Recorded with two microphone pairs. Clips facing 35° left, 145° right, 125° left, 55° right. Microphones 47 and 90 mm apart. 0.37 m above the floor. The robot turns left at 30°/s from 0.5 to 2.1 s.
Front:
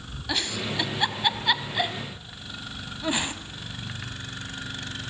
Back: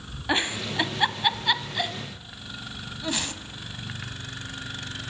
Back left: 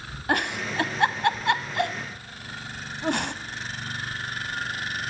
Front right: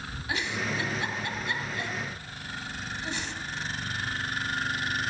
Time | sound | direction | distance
0.3 | a giggle | 155° left | 1.2 m